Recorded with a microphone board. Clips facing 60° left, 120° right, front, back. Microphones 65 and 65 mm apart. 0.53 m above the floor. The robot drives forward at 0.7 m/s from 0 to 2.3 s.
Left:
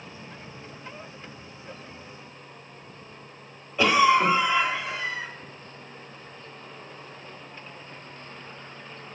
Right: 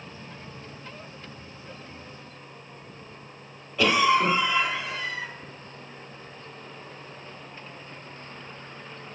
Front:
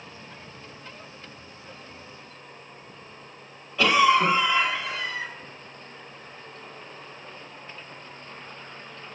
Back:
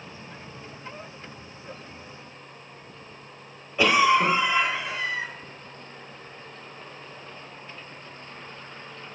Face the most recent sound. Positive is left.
turn(degrees=120)